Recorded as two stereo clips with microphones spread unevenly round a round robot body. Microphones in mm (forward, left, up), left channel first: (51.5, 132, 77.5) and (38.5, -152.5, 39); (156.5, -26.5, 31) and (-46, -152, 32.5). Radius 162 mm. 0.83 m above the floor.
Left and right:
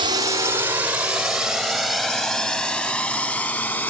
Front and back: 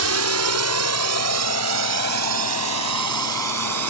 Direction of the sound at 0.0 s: 165° right.